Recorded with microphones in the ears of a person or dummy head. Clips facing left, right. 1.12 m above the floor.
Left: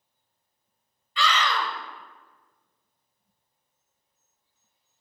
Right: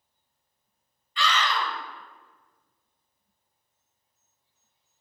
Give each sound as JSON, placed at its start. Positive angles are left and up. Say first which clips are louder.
{"t": 1.2, "sound": "a scream", "louder": "left 1 dB", "side_deg": 60, "distance_m": 0.6}